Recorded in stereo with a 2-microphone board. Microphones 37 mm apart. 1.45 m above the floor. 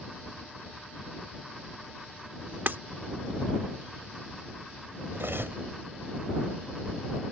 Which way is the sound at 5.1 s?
65° right (ahead or behind).